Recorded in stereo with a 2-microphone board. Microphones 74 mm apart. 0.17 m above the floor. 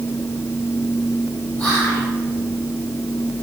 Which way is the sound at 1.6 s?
25° left (ahead or behind).